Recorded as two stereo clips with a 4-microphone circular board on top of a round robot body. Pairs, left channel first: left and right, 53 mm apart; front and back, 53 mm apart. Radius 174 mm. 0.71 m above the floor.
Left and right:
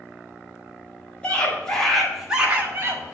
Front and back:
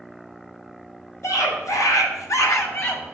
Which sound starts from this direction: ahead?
A scream, at 1.2 s.